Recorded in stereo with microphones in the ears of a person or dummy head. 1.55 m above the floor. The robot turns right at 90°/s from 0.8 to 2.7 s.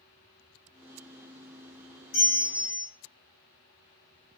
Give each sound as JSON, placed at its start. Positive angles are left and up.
{"t": 2.1, "sound": "a bell", "azimuth_deg": 100, "distance_m": 1.1}